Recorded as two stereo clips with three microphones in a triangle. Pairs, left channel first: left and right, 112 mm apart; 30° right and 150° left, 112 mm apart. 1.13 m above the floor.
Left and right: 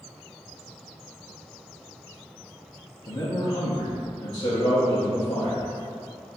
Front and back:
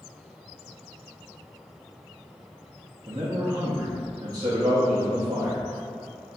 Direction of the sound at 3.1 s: 115° left.